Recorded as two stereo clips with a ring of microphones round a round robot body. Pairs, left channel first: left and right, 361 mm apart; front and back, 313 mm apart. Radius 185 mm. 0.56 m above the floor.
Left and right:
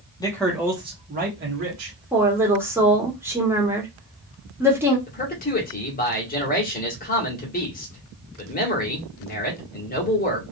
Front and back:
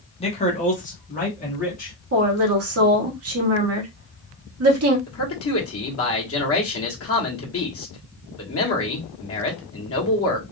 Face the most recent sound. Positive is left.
turn(degrees=30)